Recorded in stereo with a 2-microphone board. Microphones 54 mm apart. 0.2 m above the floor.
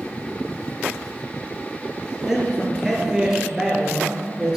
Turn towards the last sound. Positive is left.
turn(degrees=-10)  # may be behind; listen again after turning